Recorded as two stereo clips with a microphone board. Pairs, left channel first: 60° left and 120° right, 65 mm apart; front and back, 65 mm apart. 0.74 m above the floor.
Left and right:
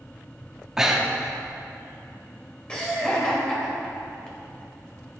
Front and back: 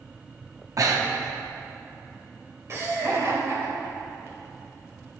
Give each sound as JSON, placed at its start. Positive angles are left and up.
{"t": 0.8, "sound": "breathing", "azimuth_deg": 160, "distance_m": 0.9}
{"t": 2.7, "sound": "laughter", "azimuth_deg": 135, "distance_m": 3.0}